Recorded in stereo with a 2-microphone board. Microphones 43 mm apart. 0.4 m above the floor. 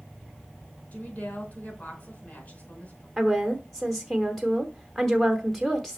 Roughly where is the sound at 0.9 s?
Left.